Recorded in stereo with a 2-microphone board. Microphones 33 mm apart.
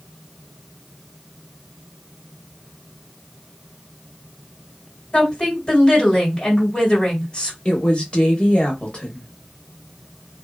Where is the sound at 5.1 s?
30° left (ahead or behind), 1.8 m.